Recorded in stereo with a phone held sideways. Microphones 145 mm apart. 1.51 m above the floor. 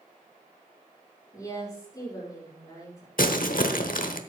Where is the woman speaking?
25° left (ahead or behind), 4 m.